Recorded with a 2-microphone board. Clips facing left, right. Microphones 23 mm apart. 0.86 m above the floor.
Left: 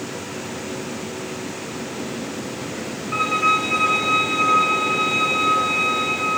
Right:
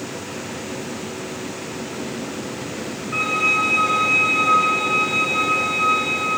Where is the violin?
55° left (ahead or behind), 1.1 m.